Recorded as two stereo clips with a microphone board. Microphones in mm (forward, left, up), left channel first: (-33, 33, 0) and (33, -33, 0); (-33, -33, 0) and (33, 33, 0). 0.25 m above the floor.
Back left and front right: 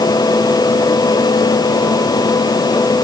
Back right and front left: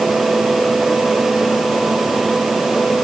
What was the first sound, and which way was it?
Only background noise.